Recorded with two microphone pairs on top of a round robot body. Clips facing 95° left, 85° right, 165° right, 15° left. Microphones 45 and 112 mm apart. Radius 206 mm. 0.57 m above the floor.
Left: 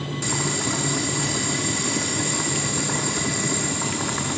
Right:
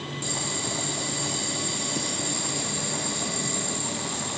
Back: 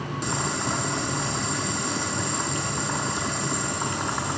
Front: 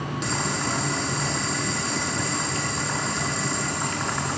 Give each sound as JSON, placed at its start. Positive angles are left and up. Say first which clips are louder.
{"t": 0.2, "sound": "boiling", "louder": "left 7 dB, even", "azimuth_deg": 125, "distance_m": 4.0}